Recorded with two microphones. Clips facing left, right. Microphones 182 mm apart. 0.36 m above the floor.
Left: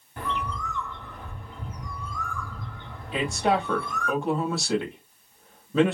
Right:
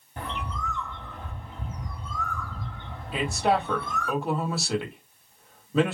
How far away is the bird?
About 2.5 m.